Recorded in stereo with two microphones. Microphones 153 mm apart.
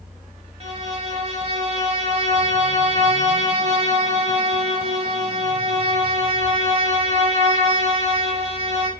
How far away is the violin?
About 0.8 m.